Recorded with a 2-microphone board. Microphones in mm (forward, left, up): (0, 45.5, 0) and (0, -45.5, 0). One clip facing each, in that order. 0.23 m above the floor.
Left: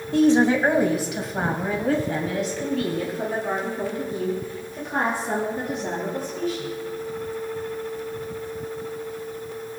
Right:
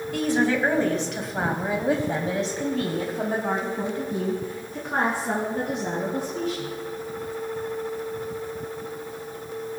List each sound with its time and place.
0.1 s a woman speaking: 30° left (ahead or behind), 1.7 m; by 6.7 s 70° right (ahead or behind), 4.5 m